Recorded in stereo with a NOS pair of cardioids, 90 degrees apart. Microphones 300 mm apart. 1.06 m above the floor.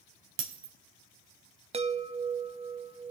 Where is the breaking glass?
45° right, 2.5 m.